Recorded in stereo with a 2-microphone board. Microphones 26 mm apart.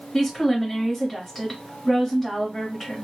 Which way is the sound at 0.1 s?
5° left (ahead or behind).